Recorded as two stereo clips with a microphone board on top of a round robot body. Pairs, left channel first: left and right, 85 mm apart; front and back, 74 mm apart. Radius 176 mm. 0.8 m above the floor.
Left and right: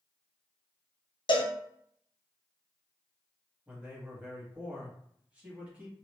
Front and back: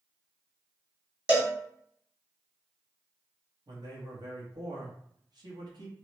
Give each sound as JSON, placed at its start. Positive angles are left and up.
{"t": 1.3, "sound": "a cowbell", "azimuth_deg": 105, "distance_m": 1.2}
{"t": 3.7, "sound": "a man speaking", "azimuth_deg": -165, "distance_m": 1.6}